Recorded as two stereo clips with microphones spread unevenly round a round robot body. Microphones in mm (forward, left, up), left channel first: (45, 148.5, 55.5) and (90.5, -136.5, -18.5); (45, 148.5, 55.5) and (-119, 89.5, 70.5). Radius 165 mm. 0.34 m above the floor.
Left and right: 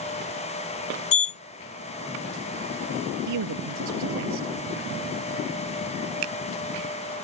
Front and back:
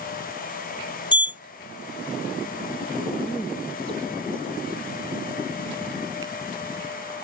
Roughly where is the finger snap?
Right.